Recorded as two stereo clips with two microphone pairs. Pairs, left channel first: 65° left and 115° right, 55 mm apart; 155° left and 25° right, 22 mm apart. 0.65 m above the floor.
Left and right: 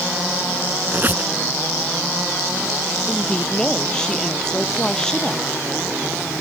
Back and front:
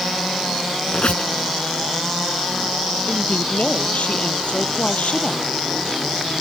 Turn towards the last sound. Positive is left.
turn(degrees=140)